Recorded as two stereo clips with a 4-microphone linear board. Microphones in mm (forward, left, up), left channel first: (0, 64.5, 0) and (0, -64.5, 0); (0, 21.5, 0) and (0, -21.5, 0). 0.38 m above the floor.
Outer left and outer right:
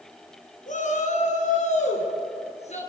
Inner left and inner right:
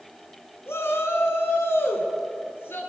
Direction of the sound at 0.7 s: 75° left (ahead or behind).